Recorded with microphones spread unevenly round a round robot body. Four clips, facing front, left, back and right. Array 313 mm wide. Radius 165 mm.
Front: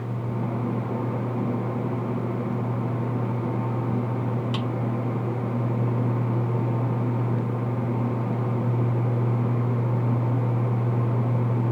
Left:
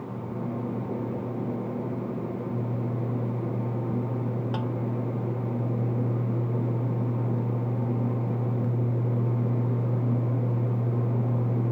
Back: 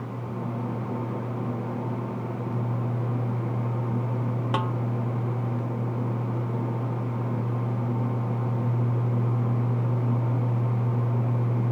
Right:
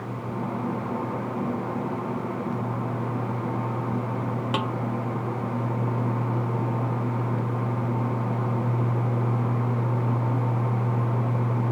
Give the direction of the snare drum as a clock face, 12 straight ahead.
4 o'clock.